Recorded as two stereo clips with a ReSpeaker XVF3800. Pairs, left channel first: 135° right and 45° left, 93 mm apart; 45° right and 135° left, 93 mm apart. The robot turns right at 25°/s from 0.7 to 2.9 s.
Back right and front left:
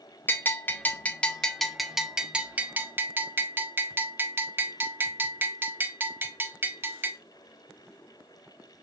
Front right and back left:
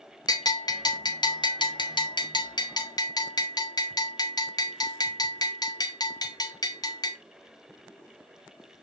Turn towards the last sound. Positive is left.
turn(degrees=-15)